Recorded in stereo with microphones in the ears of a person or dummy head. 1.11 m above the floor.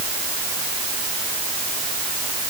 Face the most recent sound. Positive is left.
No sound to turn to.